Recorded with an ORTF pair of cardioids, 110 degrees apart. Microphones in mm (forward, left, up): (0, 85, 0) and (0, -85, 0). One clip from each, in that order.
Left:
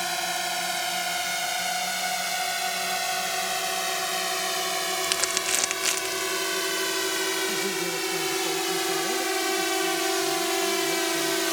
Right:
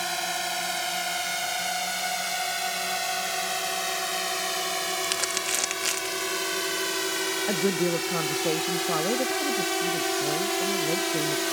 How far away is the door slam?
No door slam in this recording.